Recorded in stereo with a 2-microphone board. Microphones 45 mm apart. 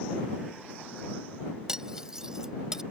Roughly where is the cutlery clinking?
Centre.